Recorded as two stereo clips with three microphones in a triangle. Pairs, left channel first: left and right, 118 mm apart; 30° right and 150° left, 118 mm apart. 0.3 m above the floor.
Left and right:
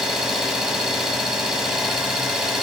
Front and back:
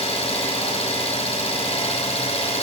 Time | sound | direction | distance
0.0 | an engine running | 5° right | 0.8 m